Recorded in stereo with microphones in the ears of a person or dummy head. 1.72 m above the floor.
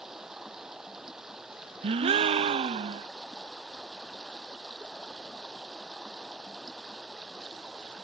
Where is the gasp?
35° right (ahead or behind).